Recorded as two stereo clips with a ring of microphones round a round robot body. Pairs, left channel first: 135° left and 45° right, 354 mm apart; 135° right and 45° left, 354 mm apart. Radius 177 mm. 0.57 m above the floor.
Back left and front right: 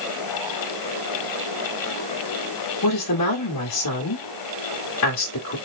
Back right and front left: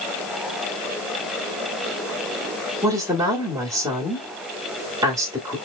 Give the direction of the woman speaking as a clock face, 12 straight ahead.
8 o'clock.